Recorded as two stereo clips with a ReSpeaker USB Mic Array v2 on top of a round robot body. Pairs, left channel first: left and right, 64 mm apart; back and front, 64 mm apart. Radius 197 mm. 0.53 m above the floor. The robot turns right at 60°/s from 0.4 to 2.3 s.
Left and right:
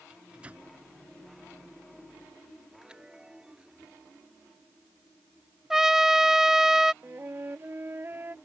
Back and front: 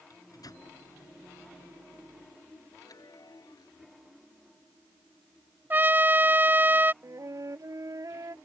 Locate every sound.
0.1 s a microwave: 165° right; by 0.7 s 150° right
2.8 s a chime: 165° right
5.7 s a trumpet: 15° right
7.0 s a flute: 35° right